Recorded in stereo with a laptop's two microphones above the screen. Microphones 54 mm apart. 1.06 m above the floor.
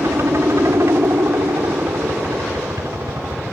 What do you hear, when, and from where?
0.0 s a helicopter: 65° right (ahead or behind); by 3.5 s 70° right (ahead or behind)